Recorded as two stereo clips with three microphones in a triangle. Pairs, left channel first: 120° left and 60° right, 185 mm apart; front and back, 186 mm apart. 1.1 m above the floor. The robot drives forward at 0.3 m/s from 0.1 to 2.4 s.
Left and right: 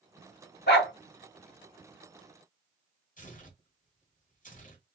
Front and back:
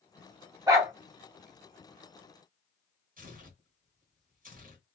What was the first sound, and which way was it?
A dog barking, 110° left.